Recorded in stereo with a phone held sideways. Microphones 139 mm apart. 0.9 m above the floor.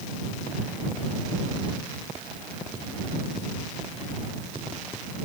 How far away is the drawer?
I don't hear a drawer.